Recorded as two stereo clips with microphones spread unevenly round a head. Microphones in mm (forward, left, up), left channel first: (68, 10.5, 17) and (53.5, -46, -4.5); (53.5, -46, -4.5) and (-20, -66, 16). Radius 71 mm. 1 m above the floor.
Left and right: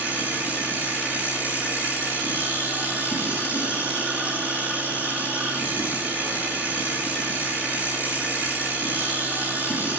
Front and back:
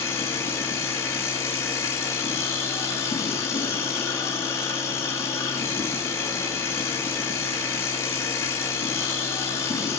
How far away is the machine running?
About 5.5 m.